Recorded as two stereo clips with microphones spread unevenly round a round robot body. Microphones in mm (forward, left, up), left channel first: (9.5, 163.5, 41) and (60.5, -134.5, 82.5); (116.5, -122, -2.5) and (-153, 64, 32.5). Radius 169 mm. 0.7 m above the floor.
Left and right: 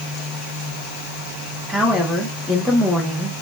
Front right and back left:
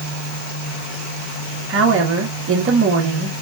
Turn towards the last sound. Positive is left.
turn(degrees=-175)